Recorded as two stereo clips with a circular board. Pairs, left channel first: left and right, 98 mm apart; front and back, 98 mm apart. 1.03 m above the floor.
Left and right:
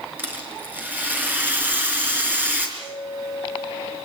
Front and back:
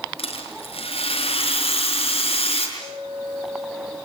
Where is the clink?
30° right, 9 m.